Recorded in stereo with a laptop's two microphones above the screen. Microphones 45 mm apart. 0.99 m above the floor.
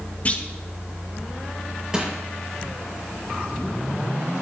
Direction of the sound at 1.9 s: 15° right (ahead or behind).